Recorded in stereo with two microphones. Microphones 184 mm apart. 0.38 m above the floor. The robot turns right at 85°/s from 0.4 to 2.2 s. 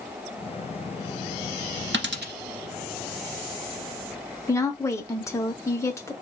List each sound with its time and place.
1.9 s a dropped coin: 85° right, 0.7 m; by 2.3 s 65° right (ahead or behind), 0.7 m
4.5 s a woman speaking: 15° left (ahead or behind), 0.8 m